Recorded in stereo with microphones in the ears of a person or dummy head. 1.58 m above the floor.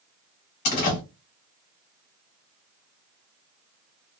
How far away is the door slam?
About 1.2 m.